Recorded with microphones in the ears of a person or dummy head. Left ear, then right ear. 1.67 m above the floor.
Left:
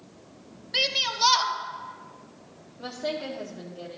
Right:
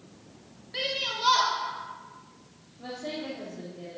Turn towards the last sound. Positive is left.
turn(degrees=55)  # may be behind; listen again after turning